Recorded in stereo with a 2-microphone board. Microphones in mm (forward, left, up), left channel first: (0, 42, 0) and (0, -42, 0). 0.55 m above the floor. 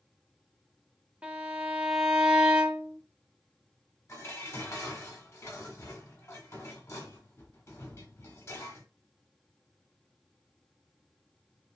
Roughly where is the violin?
Centre.